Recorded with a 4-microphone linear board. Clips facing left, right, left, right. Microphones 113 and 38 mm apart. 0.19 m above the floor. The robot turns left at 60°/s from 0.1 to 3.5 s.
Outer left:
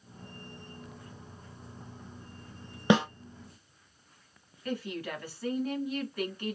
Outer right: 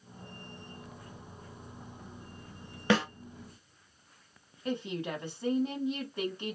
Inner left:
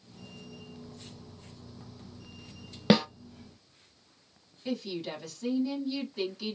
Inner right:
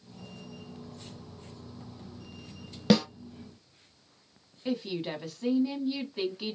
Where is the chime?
I don't hear a chime.